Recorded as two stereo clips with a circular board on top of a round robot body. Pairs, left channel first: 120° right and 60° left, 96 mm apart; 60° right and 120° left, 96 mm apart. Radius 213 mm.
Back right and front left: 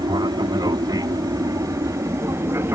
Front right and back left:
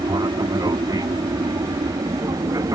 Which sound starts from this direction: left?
An aircraft, at 0.0 s.